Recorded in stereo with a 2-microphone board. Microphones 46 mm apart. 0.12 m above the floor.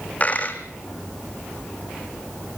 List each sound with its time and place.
0.2 s a dropped coin: 35° left (ahead or behind), 2.0 m